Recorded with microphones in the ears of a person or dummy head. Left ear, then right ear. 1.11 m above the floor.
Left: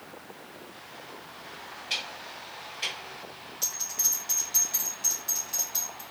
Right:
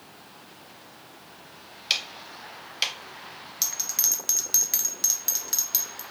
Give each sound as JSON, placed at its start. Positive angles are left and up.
{"t": 1.9, "sound": "ticking", "side_deg": -60, "distance_m": 0.6}
{"t": 3.6, "sound": "a bell", "side_deg": -50, "distance_m": 0.5}